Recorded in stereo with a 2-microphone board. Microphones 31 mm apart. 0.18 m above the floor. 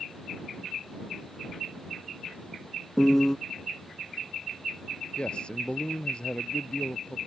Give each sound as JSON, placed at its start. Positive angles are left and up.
{"t": 3.0, "sound": "a piano", "side_deg": 10}
{"t": 5.2, "sound": "a man speaking", "side_deg": 35}